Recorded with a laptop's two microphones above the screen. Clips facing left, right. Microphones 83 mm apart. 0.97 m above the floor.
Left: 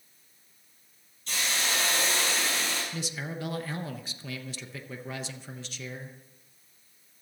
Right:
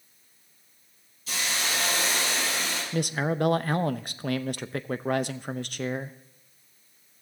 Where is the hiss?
5° right (ahead or behind), 4.5 m.